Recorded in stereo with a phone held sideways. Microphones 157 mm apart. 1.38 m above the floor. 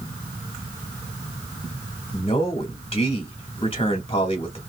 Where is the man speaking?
35° left (ahead or behind), 2 m.